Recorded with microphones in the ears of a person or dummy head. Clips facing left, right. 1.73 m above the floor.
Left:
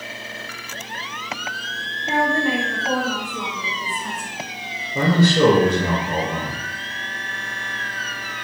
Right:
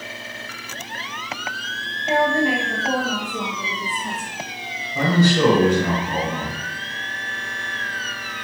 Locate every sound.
2.1 s a woman speaking: 25° right (ahead or behind), 2.5 m; by 4.3 s 20° right (ahead or behind), 0.6 m
5.0 s a man speaking: 35° left (ahead or behind), 1.7 m